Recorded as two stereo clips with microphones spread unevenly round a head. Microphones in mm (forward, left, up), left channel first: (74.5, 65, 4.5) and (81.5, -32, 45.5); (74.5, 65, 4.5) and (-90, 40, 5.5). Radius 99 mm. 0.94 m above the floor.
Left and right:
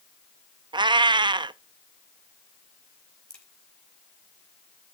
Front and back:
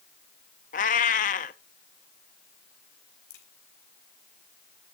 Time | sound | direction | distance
0.7 | a cat meowing | 45° right | 0.5 m
3.3 | a crack | 15° left | 3 m